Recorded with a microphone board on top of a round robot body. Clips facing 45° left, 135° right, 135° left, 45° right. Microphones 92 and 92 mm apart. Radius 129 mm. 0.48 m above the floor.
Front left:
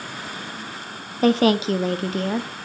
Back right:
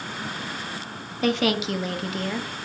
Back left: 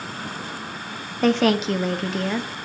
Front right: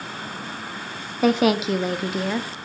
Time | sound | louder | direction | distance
1.2 | a woman speaking | front left 6 dB, even | 35° left | 0.8 m